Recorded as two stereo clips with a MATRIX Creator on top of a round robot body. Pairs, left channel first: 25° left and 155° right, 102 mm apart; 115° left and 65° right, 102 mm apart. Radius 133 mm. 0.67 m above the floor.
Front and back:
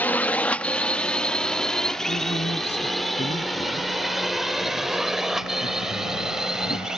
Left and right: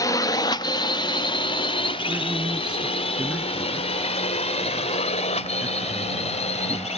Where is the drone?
85° left; by 7.0 s 115° left.